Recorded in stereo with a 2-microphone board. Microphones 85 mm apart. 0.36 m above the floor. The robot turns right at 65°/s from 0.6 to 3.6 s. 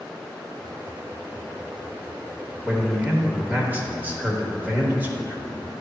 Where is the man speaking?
10° right (ahead or behind), 1.1 m; by 5.7 s 20° right (ahead or behind), 1.1 m.